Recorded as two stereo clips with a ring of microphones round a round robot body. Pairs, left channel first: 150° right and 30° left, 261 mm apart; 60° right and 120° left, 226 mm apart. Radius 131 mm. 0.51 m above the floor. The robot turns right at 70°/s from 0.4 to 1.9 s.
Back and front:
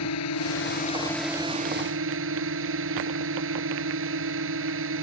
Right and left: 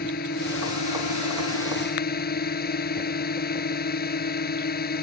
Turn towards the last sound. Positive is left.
turn(degrees=-15)